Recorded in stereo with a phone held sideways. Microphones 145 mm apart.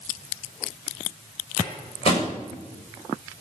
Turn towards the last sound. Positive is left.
turn(degrees=40)  # may be behind; listen again after turning